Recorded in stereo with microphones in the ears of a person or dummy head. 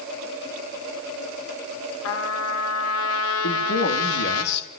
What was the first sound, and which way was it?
A trumpet, 80° left.